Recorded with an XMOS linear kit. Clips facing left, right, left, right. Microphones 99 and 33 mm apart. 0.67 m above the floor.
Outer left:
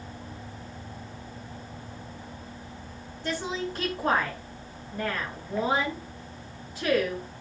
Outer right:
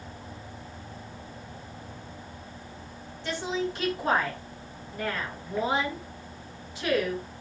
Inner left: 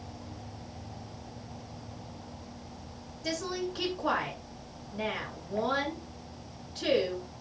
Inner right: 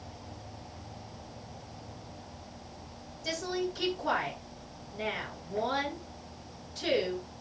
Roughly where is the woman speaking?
Left.